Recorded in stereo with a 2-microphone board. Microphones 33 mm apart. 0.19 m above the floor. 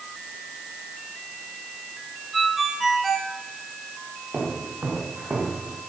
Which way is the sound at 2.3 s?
Centre (ahead or behind).